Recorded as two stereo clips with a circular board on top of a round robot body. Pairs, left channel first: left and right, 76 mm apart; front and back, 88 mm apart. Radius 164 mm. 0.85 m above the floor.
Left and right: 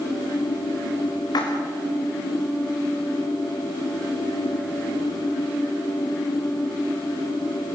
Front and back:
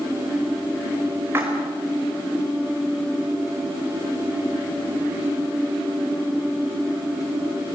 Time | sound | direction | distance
1.3 | a splash | 120° left | 5.5 m